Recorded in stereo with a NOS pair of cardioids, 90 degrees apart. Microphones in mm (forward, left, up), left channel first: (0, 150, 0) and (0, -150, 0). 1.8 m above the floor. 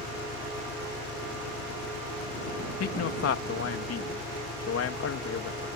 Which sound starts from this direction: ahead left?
A man speaking, at 2.8 s.